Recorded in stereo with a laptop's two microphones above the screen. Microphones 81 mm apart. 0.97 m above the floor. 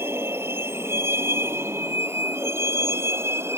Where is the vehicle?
25° right (ahead or behind); by 3.6 s 30° right (ahead or behind).